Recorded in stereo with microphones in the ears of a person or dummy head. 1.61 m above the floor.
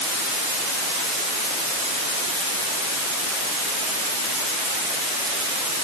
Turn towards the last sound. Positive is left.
No sound to turn to.